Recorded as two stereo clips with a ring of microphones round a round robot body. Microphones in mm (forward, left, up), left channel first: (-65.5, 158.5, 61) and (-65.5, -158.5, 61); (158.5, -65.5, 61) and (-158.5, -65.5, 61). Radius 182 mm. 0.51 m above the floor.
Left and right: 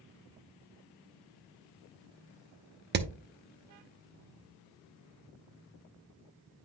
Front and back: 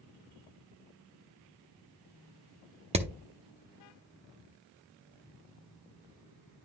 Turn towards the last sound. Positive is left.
turn(degrees=-120)